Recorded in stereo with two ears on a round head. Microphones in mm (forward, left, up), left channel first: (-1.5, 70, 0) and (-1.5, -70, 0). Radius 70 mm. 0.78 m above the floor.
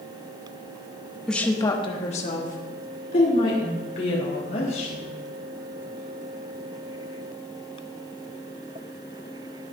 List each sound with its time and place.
1.3 s a woman speaking: 5° left (ahead or behind), 1.2 m; by 5.1 s 60° left (ahead or behind), 4.5 m